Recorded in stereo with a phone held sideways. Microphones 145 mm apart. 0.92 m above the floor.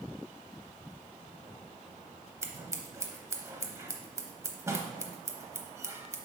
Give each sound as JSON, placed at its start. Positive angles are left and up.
{"t": 2.4, "sound": "scissors", "side_deg": -20, "distance_m": 0.7}